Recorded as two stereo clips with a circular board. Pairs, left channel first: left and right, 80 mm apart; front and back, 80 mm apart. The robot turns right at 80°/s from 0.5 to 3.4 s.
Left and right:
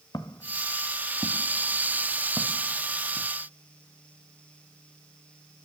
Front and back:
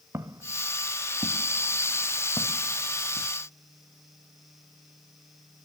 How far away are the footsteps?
About 1.6 m.